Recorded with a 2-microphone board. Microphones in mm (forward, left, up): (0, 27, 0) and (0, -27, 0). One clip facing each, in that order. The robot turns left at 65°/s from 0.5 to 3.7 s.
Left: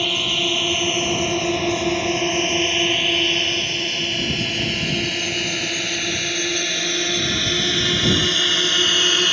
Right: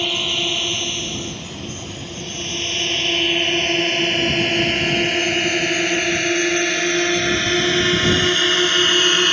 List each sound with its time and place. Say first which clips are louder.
0.0 s a drone: even; 10° left (ahead or behind); by 9.3 s 20° right (ahead or behind)